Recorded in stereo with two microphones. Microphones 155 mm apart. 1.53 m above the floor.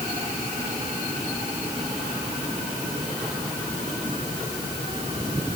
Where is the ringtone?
I don't hear a ringtone.